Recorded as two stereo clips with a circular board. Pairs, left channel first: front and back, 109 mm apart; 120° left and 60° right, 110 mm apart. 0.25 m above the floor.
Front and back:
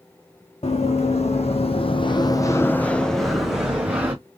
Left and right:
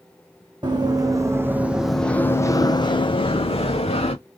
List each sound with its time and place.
0.6 s running footsteps: 15° right, 1.0 m; by 4.2 s 105° left, 1.3 m